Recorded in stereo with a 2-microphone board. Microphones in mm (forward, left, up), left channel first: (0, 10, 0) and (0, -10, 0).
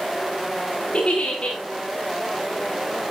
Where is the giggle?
45° left (ahead or behind), 5 m.